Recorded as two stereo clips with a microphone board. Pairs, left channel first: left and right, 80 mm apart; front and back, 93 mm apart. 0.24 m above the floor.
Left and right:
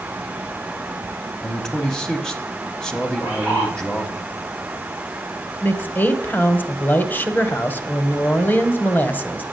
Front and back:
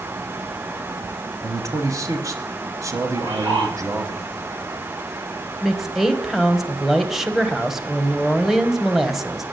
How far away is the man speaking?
About 1.1 m.